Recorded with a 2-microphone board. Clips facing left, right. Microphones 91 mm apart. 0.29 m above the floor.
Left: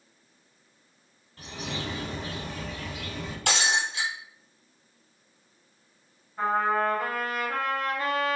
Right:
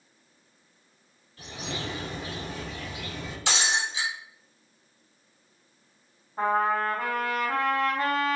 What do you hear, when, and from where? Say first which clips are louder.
1.4 s a bird: even; 45° left (ahead or behind), 1.6 m
3.5 s breaking glass: left 2 dB; 55° left (ahead or behind), 2 m
6.4 s a trumpet: even; 45° right (ahead or behind), 1.3 m